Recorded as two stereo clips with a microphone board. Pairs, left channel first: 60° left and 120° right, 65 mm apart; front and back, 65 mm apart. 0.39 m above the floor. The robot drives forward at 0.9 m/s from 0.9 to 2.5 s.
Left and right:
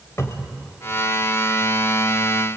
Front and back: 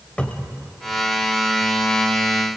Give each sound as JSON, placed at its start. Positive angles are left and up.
{"t": 0.2, "sound": "a cupboard door", "azimuth_deg": 70, "distance_m": 2.0}